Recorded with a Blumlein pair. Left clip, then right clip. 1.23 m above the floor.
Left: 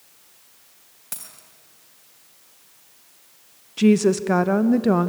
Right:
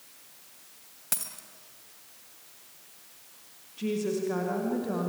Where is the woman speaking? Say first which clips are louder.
Left 12 dB; 55° left, 1.0 m.